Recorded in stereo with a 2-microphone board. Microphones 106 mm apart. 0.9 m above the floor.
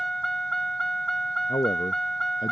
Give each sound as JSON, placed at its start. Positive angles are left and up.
{"t": 0.0, "sound": "a vehicle", "side_deg": 5}
{"t": 1.5, "sound": "a man speaking", "side_deg": 50}